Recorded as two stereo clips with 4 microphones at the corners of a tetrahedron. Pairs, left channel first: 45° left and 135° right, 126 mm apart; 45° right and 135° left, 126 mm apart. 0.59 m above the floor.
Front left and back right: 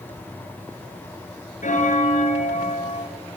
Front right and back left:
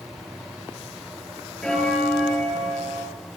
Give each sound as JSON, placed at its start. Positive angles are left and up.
{"t": 1.6, "sound": "a bell", "azimuth_deg": 40, "distance_m": 7.5}